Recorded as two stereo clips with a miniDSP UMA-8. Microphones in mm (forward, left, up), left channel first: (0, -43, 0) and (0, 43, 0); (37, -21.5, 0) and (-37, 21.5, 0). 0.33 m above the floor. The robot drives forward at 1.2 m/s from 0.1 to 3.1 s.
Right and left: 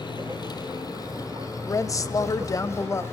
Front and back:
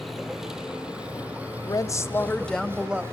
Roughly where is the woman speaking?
Ahead right.